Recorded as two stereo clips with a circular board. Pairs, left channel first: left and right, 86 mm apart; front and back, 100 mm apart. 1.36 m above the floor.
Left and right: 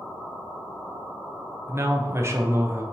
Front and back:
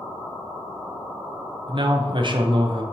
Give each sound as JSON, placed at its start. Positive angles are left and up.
{"t": 1.7, "sound": "a man speaking", "azimuth_deg": -145, "distance_m": 0.6}